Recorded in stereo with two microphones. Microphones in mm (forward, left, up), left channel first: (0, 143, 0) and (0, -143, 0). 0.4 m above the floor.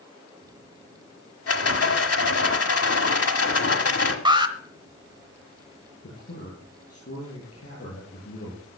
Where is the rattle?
55° left (ahead or behind), 1.4 m.